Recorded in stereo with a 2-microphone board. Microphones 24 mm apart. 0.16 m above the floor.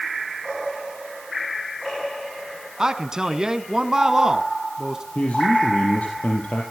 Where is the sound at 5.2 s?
65° left (ahead or behind), 3.5 m.